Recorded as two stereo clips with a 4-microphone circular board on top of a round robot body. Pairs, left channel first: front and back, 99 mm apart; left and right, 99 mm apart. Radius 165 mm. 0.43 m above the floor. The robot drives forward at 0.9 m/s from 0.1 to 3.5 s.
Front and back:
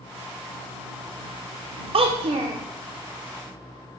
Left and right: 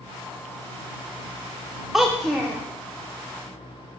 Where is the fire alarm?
I don't hear a fire alarm.